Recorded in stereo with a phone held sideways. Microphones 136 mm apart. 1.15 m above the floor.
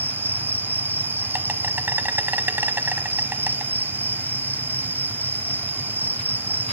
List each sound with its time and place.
0.0 s an insect: 15° right (ahead or behind), 1.1 m